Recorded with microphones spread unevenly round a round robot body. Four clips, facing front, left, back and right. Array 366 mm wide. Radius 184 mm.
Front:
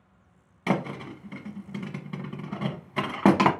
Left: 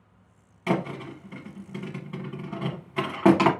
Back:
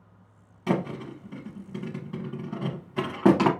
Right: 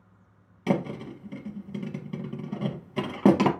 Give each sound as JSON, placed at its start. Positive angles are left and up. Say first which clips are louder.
{"t": 0.7, "sound": "a thud", "louder": "even, even", "azimuth_deg": -70, "distance_m": 0.8}